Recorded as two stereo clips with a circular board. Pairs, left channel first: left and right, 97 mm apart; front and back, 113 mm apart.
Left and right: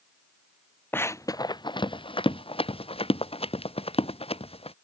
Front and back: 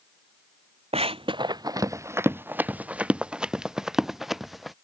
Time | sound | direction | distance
0.9 | running footsteps | 160° left | ?